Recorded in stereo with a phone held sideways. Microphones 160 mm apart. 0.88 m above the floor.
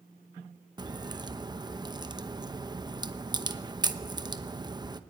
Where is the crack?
25° right (ahead or behind), 0.9 m.